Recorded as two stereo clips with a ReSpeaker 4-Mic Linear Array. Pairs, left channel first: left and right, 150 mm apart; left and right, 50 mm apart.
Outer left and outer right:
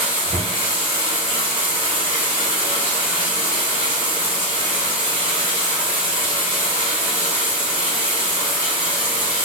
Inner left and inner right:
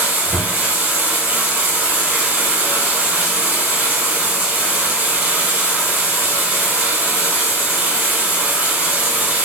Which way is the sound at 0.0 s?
35° right (ahead or behind).